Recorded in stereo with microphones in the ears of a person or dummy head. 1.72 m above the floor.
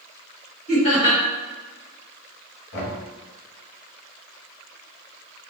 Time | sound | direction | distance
0.7 | laughter | 50° left (ahead or behind) | 1.9 m
2.7 | knocking | 65° left (ahead or behind) | 0.9 m